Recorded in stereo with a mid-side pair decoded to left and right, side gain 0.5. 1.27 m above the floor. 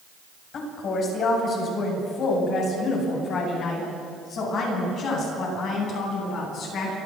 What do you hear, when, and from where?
0.5 s a woman speaking: 55° left, 8 m; by 7.0 s 60° left, 11.5 m